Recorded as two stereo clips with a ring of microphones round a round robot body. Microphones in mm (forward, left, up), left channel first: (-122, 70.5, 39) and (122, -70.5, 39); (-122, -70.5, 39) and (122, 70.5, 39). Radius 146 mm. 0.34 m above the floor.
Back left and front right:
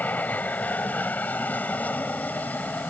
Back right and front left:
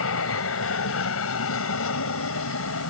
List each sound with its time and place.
0.0 s an aircraft: 125° right